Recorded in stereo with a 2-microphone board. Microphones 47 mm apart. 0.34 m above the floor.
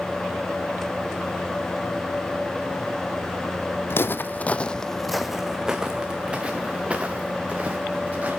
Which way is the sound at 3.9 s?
60° left (ahead or behind).